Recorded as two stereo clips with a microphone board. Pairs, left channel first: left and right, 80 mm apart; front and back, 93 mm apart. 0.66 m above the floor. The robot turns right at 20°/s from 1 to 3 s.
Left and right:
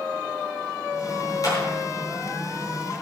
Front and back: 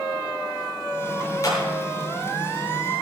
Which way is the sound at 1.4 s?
50° left.